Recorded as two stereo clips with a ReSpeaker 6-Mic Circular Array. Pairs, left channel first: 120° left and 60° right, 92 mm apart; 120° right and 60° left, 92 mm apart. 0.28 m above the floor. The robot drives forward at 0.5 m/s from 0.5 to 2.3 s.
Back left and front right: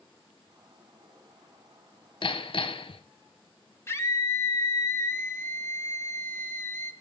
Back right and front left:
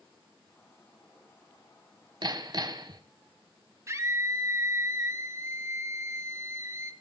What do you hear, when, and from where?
2.2 s hammering: 95° left, 0.7 m; by 3.0 s 100° left, 0.7 m
3.9 s a scream: 85° left, 1.0 m